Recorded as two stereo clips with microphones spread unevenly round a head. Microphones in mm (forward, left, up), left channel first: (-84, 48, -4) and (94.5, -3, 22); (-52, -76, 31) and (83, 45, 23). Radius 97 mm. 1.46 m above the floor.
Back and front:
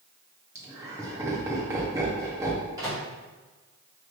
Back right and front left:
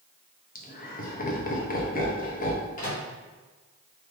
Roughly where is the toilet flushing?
No toilet flushing in this recording.